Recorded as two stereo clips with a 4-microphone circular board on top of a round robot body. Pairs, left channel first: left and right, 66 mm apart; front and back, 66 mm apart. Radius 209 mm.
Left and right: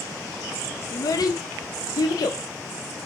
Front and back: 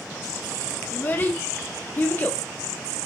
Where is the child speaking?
60° left, 0.6 m.